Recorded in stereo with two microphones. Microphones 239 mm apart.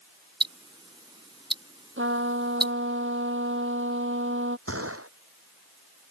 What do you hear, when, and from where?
0.4 s ticking: 20° right (ahead or behind)
2.0 s a trumpet: 55° right (ahead or behind)
4.7 s a gunshot: 70° right (ahead or behind)